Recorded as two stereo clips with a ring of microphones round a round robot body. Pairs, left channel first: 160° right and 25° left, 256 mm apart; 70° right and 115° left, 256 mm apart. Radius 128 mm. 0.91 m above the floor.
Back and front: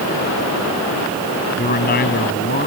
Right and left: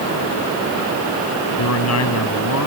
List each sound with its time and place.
1.6 s a man speaking: 100° right